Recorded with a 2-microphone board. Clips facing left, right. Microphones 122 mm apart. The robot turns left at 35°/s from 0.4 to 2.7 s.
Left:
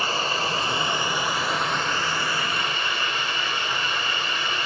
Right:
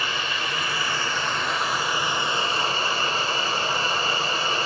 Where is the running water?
40° left, 1.0 m; by 4.7 s 40° right, 1.0 m.